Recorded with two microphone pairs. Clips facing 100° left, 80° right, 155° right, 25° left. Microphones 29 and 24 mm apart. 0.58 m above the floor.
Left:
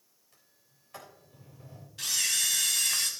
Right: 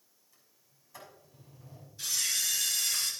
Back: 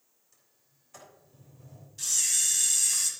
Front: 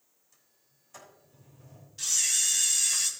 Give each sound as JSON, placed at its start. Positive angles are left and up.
{"t": 0.3, "sound": "a sliding door", "azimuth_deg": 115, "distance_m": 3.5}
{"t": 2.0, "sound": "a camera shutter", "azimuth_deg": 100, "distance_m": 1.8}